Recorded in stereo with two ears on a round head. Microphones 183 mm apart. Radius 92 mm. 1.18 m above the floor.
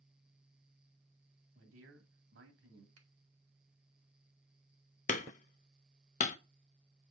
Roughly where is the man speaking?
Right.